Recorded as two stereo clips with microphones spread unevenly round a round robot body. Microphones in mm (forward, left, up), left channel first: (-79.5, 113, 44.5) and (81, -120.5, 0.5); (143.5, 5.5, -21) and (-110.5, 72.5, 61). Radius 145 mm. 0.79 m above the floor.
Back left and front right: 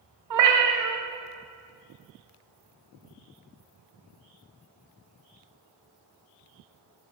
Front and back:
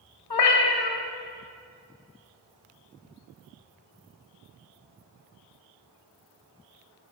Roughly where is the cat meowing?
Ahead right.